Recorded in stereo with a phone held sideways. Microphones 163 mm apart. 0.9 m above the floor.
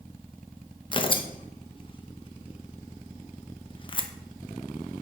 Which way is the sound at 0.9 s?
35° left (ahead or behind).